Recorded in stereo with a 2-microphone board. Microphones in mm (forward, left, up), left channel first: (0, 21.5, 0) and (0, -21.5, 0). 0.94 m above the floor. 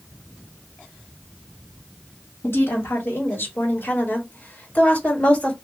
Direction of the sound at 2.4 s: 70° left (ahead or behind).